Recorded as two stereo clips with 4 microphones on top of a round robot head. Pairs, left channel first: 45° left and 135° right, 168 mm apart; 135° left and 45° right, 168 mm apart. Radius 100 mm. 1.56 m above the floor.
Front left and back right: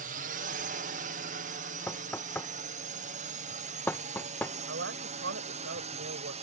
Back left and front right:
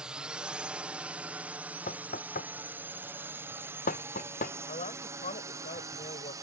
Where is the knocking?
120° left.